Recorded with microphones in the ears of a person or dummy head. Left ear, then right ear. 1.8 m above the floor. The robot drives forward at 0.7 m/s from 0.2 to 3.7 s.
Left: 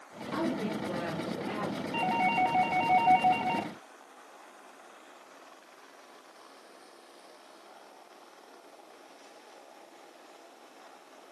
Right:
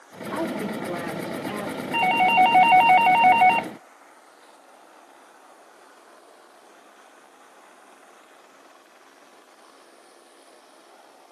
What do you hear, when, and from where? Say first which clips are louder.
0.3 s a woman speaking: right 4 dB; 30° right (ahead or behind), 3.5 m; by 1.8 s 25° right (ahead or behind), 4.5 m
1.9 s a doorbell: right 10 dB; 40° right (ahead or behind), 1.0 m; by 3.7 s 45° right (ahead or behind), 0.8 m